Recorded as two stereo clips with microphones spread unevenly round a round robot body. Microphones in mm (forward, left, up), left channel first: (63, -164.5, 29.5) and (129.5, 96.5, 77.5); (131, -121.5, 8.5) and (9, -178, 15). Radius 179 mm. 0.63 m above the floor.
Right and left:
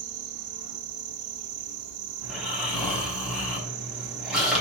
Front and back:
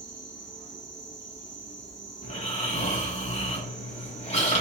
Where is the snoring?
15° right, 5.5 m.